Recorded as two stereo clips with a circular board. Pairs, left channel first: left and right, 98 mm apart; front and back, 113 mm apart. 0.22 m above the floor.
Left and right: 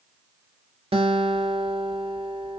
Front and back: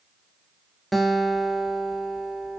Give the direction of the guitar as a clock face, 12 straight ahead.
3 o'clock.